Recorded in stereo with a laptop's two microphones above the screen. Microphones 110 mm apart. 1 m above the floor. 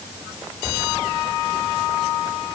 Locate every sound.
Only background noise.